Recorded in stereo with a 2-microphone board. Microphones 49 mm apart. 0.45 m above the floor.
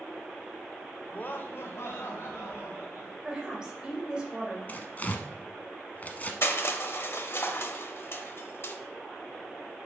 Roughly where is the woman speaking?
Centre.